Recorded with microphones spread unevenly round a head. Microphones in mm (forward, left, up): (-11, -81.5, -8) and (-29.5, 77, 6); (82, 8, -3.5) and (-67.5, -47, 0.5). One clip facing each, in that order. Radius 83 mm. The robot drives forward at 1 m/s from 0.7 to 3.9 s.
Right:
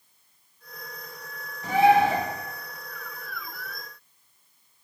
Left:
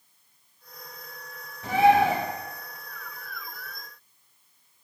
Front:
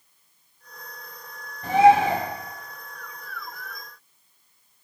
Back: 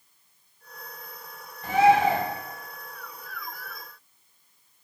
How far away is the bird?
About 4.5 m.